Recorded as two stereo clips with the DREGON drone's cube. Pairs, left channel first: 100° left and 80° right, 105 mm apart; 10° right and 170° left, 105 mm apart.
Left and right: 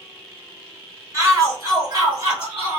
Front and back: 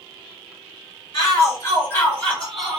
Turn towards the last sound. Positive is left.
turn(degrees=-110)